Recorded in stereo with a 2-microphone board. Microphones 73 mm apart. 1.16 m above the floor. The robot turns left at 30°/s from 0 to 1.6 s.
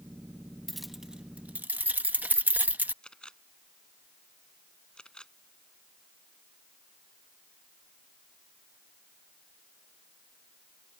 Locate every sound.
0.7 s keys jangling: centre (ahead or behind); by 2.9 s 25° right (ahead or behind)
3.0 s a camera shutter: 10° left (ahead or behind)